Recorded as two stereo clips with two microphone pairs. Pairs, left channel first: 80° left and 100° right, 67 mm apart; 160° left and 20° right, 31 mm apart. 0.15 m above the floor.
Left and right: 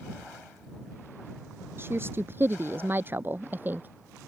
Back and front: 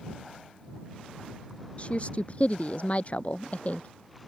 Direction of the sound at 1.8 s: 155° right.